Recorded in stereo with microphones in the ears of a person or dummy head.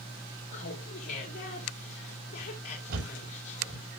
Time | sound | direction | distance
0.5 | laughter | 50° left (ahead or behind) | 2.5 m
2.9 | a thud | 65° right (ahead or behind) | 9 m